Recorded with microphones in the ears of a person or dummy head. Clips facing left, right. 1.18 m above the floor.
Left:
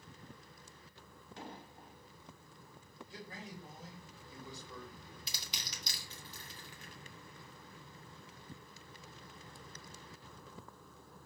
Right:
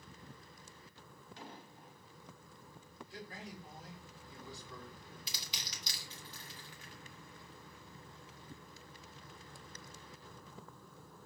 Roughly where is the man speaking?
Left.